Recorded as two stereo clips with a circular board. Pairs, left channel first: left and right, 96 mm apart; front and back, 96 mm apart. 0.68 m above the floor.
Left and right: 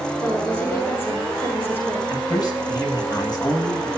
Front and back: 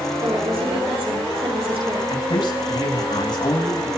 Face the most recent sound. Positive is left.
turn(degrees=45)